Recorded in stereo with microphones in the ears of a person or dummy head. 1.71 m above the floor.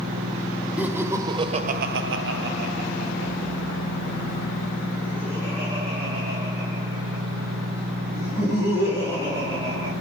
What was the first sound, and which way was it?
Laughter, 5° right (ahead or behind).